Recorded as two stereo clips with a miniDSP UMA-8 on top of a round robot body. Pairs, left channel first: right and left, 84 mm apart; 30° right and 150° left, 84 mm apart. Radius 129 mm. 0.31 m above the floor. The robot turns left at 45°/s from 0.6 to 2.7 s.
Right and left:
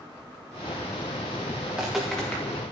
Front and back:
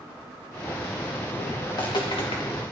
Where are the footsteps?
15° left, 2.5 m; by 2.4 s 20° right, 2.5 m.